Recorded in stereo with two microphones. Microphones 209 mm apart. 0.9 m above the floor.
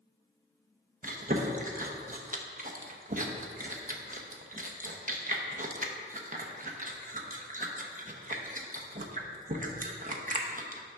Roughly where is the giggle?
No giggle in this recording.